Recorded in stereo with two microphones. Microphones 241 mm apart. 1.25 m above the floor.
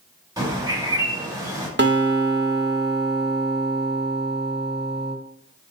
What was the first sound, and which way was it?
A bird, 15° right (ahead or behind).